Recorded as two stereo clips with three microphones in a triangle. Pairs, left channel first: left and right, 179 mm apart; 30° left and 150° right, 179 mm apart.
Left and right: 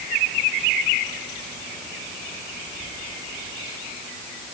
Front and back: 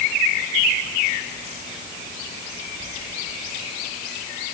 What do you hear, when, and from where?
Only background noise.